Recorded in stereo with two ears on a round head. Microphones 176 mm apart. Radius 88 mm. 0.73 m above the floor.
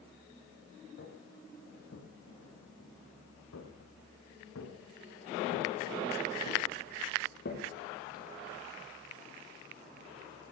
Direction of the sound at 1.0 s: 55° left (ahead or behind).